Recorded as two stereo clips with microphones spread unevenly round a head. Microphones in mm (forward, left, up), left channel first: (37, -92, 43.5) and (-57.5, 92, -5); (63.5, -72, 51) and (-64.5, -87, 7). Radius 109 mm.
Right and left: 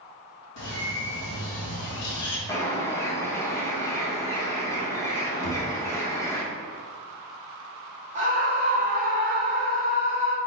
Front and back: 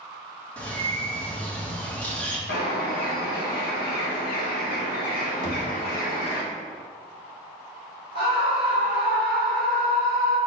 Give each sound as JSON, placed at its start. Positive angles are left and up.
{"t": 0.6, "sound": "a bird", "azimuth_deg": -75, "distance_m": 1.1}
{"t": 2.5, "sound": "a bird", "azimuth_deg": 15, "distance_m": 0.8}
{"t": 5.4, "sound": "knocking", "azimuth_deg": -90, "distance_m": 1.7}
{"t": 8.2, "sound": "a scream", "azimuth_deg": 70, "distance_m": 1.7}